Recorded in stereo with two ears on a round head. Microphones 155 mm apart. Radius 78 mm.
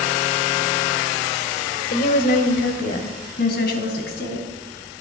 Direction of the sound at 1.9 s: 50° left (ahead or behind).